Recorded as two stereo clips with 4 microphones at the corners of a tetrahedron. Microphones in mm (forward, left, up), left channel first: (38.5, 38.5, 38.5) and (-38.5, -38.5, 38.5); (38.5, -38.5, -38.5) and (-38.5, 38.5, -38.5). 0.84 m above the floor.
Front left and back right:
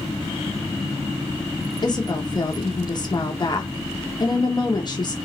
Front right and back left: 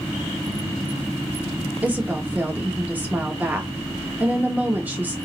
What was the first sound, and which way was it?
A woman speaking, 70° left.